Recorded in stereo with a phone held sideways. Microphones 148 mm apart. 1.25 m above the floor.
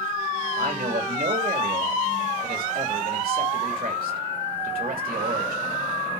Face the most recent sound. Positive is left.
turn(degrees=-85)